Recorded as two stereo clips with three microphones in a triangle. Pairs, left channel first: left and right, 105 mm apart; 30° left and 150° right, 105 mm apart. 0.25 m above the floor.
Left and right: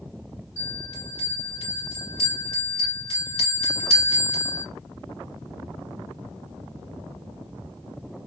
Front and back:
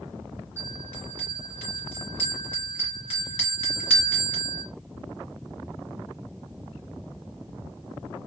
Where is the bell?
100° left, 2.0 m.